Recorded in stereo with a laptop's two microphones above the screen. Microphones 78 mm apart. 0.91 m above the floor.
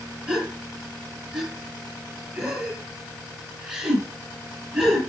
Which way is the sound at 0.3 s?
15° right (ahead or behind).